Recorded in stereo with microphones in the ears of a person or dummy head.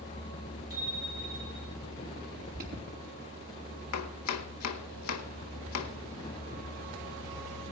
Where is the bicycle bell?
20° right (ahead or behind), 9.5 m.